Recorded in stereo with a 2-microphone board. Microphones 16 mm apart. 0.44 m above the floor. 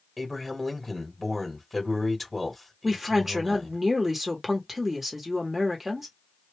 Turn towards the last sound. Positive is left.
turn(degrees=-15)  # may be behind; listen again after turning